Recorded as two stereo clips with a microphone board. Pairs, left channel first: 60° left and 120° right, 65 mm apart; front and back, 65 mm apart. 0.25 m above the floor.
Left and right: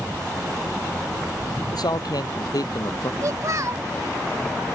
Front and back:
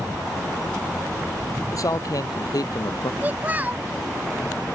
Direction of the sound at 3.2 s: 120° right.